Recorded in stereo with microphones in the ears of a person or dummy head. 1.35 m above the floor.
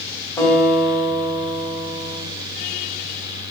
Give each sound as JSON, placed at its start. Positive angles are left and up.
{"t": 0.4, "sound": "a guitar", "side_deg": 15, "distance_m": 1.3}